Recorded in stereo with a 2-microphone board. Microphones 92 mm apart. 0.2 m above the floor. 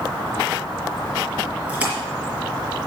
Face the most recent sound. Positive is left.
turn(degrees=-20)  # may be behind; listen again after turning